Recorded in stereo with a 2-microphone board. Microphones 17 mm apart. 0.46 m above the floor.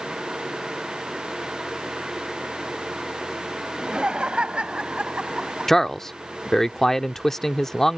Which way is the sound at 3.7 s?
60° right (ahead or behind).